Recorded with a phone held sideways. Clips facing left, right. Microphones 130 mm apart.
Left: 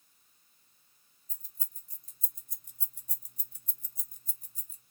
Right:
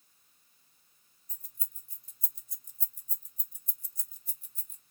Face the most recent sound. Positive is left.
turn(degrees=35)  # may be behind; listen again after turning